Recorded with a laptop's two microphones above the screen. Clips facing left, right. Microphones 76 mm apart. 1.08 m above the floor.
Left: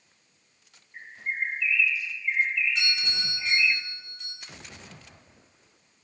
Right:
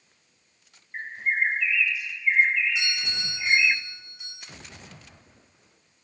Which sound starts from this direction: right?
A bird, at 0.9 s.